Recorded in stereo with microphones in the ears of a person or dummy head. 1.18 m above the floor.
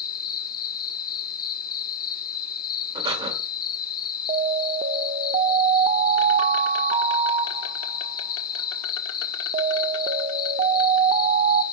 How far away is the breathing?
About 1.9 m.